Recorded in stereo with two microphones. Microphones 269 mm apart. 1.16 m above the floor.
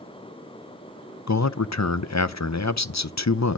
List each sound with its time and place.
1.3 s a man speaking: 80° left, 0.6 m